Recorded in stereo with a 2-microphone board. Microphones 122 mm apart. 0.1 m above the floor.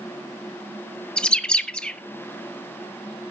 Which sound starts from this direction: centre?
A bird, at 1.2 s.